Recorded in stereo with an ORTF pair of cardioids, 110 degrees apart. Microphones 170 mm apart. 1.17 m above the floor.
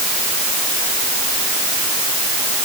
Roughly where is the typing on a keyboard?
No typing on a keyboard in this recording.